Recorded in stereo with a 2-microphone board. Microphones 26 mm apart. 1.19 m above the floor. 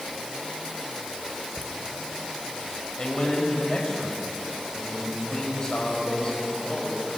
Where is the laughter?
70° left (ahead or behind), 2 m.